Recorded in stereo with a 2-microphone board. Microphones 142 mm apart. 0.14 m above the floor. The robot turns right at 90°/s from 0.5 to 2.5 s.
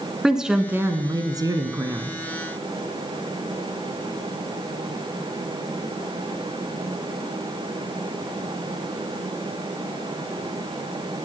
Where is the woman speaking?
5° right (ahead or behind), 1.5 m; by 2.2 s 10° right (ahead or behind), 1.5 m.